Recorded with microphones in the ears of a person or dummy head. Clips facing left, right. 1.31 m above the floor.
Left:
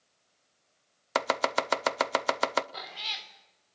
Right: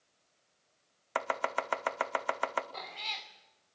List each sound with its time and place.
1.1 s chopping: 50° left (ahead or behind), 0.7 m
2.7 s a cat meowing: 10° left (ahead or behind), 1.8 m